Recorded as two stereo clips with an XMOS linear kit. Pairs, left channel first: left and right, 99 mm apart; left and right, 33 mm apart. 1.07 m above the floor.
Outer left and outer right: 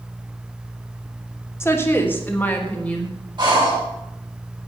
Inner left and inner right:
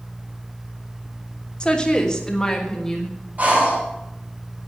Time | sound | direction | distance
1.6 | a woman speaking | 25° left (ahead or behind) | 3 m
3.4 | breathing | 50° right (ahead or behind) | 7 m